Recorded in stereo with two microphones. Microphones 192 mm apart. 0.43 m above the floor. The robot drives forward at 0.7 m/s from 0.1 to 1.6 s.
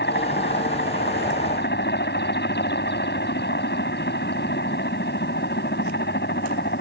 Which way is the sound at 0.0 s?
65° left (ahead or behind).